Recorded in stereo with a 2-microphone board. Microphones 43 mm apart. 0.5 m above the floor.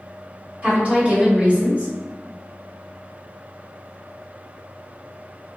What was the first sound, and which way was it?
A woman speaking, 35° right (ahead or behind).